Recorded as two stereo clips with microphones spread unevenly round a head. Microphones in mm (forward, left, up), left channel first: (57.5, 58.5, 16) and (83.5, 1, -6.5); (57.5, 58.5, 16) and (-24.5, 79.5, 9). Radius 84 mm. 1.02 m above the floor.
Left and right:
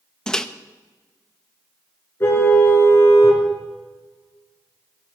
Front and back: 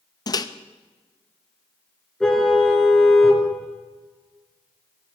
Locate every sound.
0.3 s a microwave: 30° left, 0.9 m
2.2 s a car horn: 70° left, 5 m